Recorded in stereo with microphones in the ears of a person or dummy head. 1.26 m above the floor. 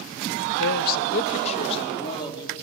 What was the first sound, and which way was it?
A man speaking, 75° left (ahead or behind).